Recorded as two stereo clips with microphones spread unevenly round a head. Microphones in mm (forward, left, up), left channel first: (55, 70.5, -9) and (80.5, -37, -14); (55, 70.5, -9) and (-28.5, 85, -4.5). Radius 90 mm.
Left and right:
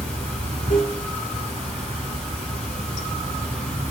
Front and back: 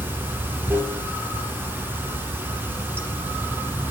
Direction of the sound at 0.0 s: 110° left.